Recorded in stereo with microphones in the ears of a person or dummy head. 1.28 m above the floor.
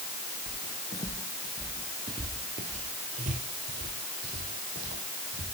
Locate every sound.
0.5 s footsteps: 40° left (ahead or behind), 1.6 m; by 5.5 s 70° right (ahead or behind), 4 m